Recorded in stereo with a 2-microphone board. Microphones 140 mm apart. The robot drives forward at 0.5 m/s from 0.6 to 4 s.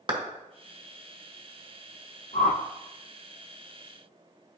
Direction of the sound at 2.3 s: 80° left.